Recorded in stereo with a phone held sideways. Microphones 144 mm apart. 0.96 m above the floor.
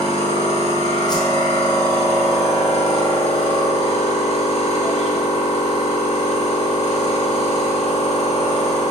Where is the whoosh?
30° left (ahead or behind), 0.6 m.